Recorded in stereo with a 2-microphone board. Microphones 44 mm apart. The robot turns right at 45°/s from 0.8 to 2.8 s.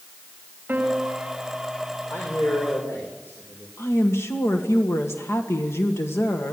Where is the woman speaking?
85° left, 1.9 m.